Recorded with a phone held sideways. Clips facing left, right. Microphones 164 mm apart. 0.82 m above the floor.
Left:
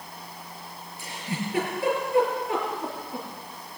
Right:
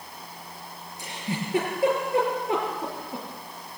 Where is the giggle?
30° right (ahead or behind), 6.5 m.